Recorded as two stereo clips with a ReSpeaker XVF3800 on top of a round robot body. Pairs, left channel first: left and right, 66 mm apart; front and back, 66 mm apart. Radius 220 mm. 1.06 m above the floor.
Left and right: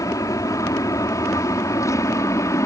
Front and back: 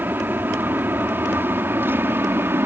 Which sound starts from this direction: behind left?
An aircraft, at 0.0 s.